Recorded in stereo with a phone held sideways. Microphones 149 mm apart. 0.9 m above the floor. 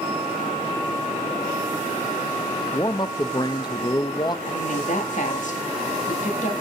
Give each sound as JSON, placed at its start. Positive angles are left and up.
{"t": 2.7, "sound": "a man speaking", "side_deg": 30, "distance_m": 0.5}
{"t": 4.5, "sound": "a woman speaking", "side_deg": 55, "distance_m": 1.7}